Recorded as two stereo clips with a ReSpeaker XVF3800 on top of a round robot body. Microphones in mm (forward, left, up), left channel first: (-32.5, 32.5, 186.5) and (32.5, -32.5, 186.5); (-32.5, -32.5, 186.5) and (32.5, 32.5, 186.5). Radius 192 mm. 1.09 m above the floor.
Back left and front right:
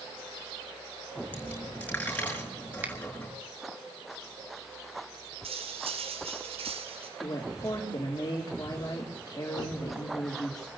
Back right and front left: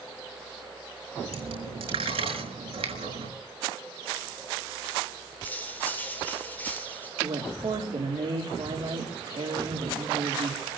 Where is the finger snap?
30° left, 2.5 m.